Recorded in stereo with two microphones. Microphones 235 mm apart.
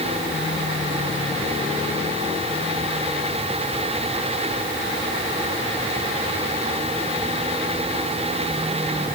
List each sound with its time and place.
Only background noise.